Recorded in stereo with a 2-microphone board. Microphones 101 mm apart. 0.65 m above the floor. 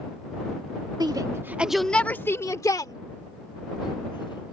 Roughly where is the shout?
Right.